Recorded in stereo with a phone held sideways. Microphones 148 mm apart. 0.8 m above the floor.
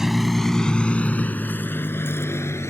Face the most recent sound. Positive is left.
turn(degrees=15)  # may be behind; listen again after turning